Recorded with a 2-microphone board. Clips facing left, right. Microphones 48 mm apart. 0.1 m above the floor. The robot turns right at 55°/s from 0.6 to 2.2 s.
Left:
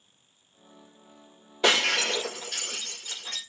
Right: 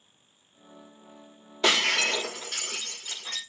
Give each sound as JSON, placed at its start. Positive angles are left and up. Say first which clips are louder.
{"t": 1.6, "sound": "breaking glass", "louder": "even", "side_deg": 15, "distance_m": 1.5}